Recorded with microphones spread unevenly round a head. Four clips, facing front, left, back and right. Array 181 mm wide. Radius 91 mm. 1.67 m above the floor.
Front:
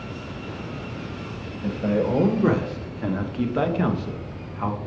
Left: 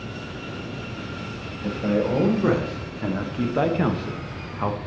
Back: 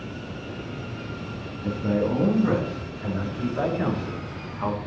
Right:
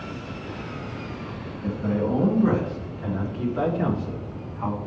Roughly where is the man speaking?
Ahead left.